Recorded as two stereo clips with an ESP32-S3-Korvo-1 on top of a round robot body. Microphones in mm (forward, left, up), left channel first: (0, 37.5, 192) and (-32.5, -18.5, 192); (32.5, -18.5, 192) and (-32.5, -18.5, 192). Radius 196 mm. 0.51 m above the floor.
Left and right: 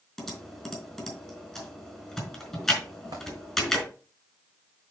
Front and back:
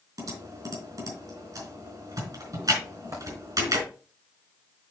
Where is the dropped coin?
140° right, 3 m.